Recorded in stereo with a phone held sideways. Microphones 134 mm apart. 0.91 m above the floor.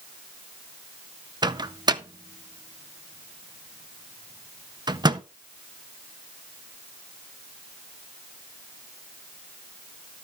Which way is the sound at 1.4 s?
30° right (ahead or behind).